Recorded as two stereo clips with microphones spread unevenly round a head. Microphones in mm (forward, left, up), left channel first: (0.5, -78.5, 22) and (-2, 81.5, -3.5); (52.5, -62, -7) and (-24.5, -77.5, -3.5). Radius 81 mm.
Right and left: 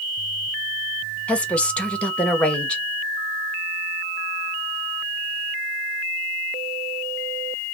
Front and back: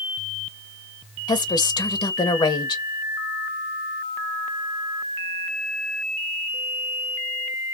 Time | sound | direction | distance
1.3 | a woman speaking | straight ahead | 0.8 m